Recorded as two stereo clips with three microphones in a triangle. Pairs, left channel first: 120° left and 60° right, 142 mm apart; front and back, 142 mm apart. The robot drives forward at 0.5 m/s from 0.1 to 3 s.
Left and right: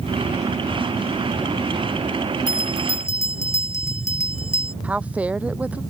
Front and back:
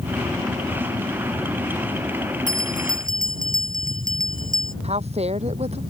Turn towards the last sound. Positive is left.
turn(degrees=-140)